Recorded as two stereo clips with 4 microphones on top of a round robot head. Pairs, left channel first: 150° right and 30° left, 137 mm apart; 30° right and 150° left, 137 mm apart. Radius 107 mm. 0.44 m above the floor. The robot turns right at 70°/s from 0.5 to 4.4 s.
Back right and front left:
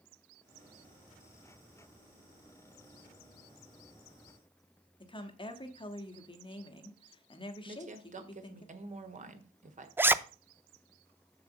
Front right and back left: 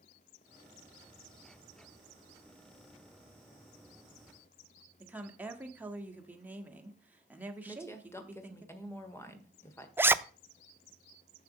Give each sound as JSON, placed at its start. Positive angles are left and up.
{"t": 5.0, "sound": "a woman speaking", "azimuth_deg": -140, "distance_m": 1.5}
{"t": 7.7, "sound": "a woman speaking", "azimuth_deg": 40, "distance_m": 1.6}
{"t": 10.0, "sound": "a zipper", "azimuth_deg": 90, "distance_m": 0.5}